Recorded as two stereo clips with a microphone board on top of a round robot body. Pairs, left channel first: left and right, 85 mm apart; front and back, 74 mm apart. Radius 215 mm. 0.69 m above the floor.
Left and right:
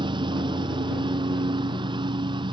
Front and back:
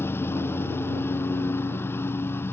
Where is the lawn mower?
60° right.